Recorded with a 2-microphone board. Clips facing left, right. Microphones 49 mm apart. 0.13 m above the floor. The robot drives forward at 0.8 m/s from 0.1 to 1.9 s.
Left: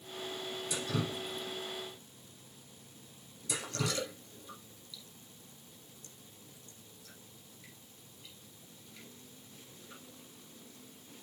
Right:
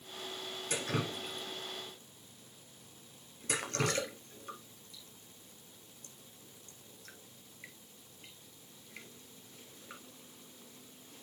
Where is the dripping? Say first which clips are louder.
Right 1 dB; 50° right (ahead or behind), 2.5 m; by 11.2 s 55° right (ahead or behind), 2.5 m.